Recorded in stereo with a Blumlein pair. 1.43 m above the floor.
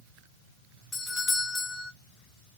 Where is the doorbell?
10° left, 1.2 m.